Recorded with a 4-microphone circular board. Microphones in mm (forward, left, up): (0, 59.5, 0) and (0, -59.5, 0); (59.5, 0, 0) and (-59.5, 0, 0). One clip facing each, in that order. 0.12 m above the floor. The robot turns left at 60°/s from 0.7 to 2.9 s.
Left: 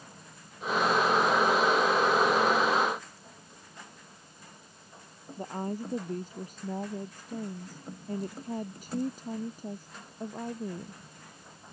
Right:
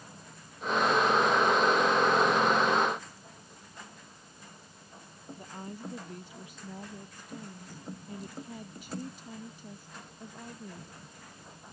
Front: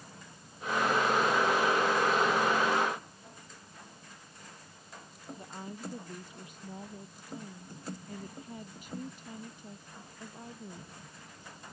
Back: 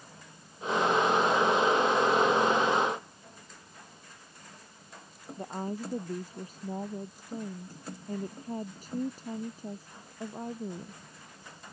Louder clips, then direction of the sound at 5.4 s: Left 9 dB, back 9 dB; 135° left.